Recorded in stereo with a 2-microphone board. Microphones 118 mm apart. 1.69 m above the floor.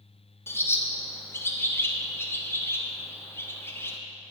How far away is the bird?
About 0.6 m.